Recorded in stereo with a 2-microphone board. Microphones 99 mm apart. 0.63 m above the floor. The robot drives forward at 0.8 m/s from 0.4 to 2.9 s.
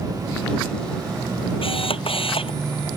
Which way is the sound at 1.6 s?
70° left (ahead or behind).